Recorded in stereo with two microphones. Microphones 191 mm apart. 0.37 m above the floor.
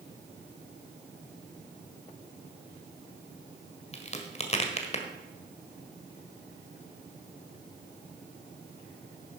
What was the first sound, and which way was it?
A crack, 35° left (ahead or behind).